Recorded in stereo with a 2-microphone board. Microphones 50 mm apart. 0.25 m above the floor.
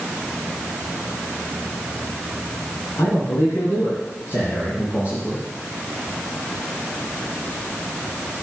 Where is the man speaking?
65° left (ahead or behind), 3.5 m; by 5.4 s 50° left (ahead or behind), 5 m.